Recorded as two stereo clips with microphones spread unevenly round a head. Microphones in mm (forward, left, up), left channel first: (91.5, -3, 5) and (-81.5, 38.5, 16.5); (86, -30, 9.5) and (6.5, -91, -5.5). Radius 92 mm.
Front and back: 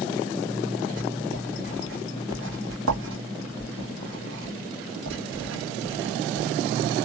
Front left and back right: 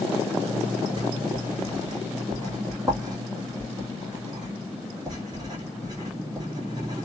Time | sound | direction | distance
1.0 | writing | 155° left | 1.3 m